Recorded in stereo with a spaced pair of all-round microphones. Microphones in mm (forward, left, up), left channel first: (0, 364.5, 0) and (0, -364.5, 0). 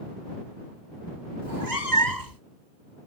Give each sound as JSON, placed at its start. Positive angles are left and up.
{"t": 1.4, "sound": "a cat meowing", "side_deg": -75}